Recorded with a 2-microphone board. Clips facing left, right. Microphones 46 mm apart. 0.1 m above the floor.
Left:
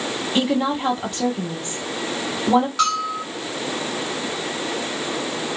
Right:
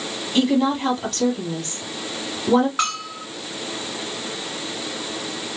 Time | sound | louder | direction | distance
0.3 | a woman speaking | right 2 dB | 20° left (ahead or behind) | 2 m
2.8 | a bell | left 4 dB | 25° right (ahead or behind) | 1.8 m